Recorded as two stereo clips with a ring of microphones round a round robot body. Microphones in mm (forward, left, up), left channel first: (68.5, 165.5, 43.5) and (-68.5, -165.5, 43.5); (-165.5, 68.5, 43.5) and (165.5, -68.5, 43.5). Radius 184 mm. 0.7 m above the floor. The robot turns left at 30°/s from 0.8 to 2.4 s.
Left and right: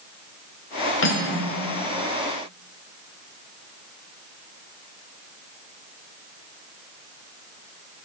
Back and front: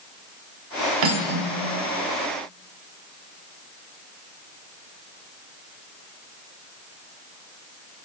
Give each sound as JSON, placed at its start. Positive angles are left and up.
{"t": 1.0, "sound": "cutlery clinking", "azimuth_deg": 10, "distance_m": 1.3}